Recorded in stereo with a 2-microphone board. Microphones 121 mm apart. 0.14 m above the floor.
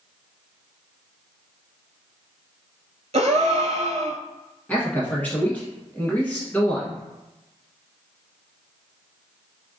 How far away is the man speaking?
About 1.1 m.